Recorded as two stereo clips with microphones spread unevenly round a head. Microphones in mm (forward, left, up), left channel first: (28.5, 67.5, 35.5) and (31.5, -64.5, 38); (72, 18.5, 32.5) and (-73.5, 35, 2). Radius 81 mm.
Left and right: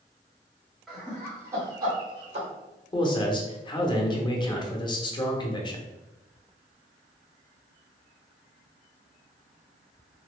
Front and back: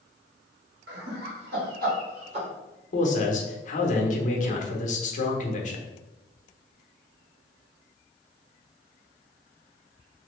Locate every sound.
0.9 s laughter: straight behind, 1.4 m; by 2.5 s 135° right, 1.1 m
2.9 s a man speaking: 35° left, 0.8 m